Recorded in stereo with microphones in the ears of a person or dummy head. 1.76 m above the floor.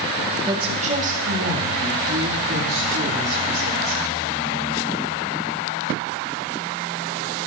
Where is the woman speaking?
20° right (ahead or behind), 1.2 m; by 4.0 s 65° right (ahead or behind), 6 m.